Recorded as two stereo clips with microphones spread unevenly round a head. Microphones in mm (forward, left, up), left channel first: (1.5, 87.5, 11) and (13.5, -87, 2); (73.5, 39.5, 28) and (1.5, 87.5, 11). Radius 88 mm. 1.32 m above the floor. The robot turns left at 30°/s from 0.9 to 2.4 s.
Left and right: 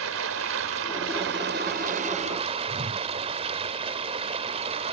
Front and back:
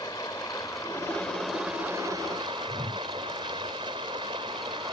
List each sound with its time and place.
0.0 s running water: 105° right; by 4.9 s 150° right
2.7 s a whoosh: 135° right